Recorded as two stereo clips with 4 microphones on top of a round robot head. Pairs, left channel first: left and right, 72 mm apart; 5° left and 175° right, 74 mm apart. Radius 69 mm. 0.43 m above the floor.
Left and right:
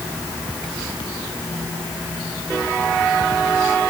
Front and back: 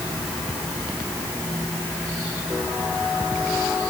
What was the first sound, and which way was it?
Only background noise.